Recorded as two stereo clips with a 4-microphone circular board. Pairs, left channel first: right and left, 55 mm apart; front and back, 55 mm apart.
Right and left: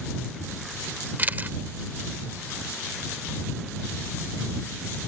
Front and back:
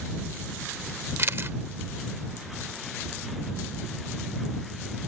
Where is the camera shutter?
145° left.